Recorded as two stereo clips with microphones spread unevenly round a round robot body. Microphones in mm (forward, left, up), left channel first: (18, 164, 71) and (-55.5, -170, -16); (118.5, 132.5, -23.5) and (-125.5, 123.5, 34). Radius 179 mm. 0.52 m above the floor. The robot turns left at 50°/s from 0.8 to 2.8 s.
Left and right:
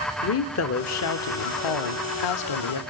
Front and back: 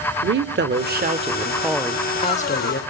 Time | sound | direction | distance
0.2 | a woman speaking | 130° left | 1.4 m